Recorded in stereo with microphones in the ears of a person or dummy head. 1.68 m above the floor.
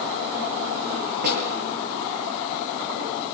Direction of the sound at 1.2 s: 55° right (ahead or behind).